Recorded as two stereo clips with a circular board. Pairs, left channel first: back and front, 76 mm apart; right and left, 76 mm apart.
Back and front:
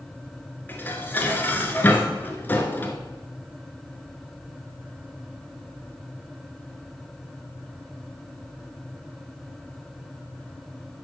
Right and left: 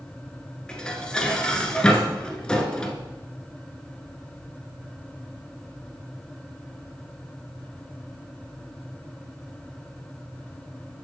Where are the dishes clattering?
155° right, 1.0 m.